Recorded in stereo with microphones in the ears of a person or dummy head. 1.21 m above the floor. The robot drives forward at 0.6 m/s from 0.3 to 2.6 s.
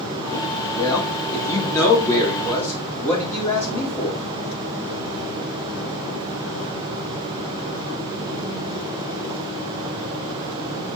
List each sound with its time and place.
0.8 s a man speaking: 15° left (ahead or behind), 2.5 m; by 4.2 s 10° left (ahead or behind), 4 m